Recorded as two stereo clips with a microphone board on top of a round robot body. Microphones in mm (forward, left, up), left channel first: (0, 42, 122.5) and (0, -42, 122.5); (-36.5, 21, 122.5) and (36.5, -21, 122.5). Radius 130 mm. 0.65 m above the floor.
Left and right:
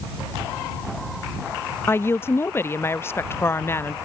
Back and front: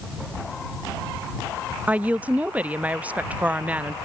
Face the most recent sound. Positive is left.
turn(degrees=35)